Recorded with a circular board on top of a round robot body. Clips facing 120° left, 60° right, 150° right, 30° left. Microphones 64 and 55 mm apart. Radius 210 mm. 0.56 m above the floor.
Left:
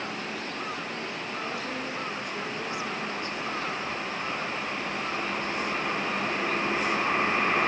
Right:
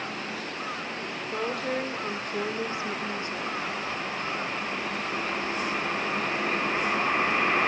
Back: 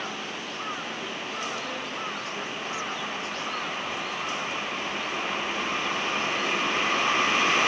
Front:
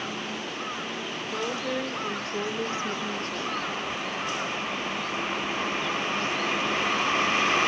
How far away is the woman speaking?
About 3 m.